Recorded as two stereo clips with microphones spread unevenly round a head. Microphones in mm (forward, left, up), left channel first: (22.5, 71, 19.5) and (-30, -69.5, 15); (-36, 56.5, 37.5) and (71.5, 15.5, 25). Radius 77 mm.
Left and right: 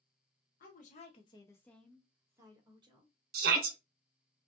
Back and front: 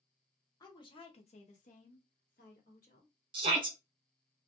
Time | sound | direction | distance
0.6 | a woman speaking | 105° left | 0.9 m
3.3 | a shout | 80° right | 0.8 m